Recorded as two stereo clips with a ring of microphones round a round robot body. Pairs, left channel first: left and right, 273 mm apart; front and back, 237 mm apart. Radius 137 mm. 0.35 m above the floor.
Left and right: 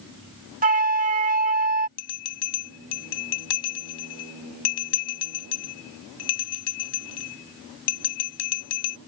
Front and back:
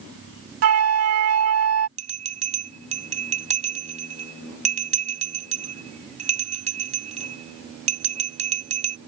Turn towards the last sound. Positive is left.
turn(degrees=120)